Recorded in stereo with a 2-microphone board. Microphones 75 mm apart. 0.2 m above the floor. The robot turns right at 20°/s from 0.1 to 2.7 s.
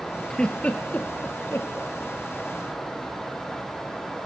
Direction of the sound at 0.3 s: 10° left (ahead or behind).